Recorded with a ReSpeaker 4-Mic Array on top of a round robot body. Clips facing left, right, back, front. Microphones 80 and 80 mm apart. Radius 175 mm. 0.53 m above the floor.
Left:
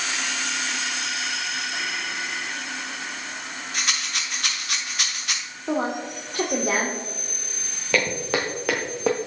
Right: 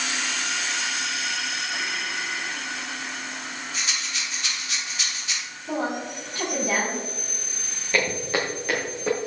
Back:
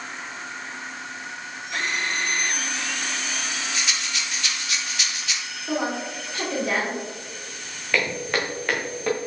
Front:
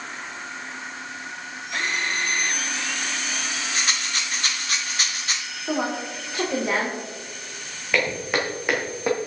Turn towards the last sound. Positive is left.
turn(degrees=75)